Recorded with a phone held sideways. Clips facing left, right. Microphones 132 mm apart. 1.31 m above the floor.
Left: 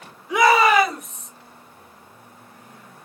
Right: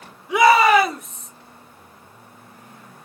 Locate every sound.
0.3 s a shout: 5° right (ahead or behind), 4.5 m; by 1.3 s 5° left (ahead or behind), 5 m